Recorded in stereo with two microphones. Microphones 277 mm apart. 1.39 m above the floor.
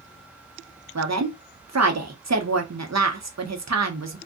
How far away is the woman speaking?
About 0.7 m.